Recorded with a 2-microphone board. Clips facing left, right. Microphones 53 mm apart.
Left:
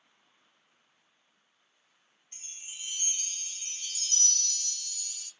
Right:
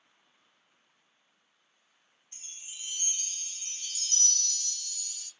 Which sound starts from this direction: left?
A chime, at 2.3 s.